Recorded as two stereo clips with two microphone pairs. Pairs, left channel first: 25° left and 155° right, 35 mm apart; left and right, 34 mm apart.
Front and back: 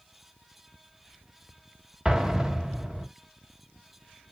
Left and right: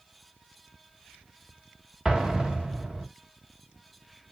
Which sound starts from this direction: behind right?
An explosion, at 2.0 s.